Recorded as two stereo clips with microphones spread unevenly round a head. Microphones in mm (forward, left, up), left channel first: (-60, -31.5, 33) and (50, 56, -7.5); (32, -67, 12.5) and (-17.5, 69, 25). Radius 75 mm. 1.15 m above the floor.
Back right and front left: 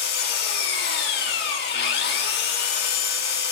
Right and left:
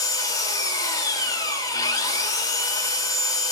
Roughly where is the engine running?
Behind right.